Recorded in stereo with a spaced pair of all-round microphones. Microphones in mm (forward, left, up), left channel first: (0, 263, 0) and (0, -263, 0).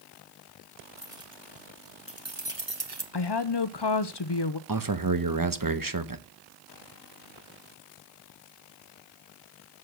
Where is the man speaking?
40° right (ahead or behind), 1.0 m.